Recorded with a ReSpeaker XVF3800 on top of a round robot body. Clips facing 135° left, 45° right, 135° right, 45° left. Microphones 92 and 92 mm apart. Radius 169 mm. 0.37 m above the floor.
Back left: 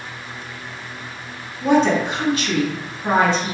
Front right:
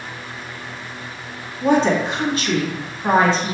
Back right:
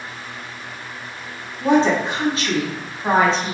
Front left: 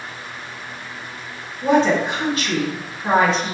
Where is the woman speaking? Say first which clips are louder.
Even, even; 85° right, 1.3 m.